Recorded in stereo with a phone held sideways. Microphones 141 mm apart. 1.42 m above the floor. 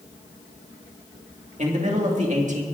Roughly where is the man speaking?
Right.